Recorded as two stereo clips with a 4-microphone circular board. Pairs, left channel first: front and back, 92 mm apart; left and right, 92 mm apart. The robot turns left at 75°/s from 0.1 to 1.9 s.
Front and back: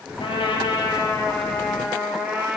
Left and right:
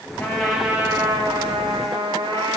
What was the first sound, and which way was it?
A trumpet, 25° left.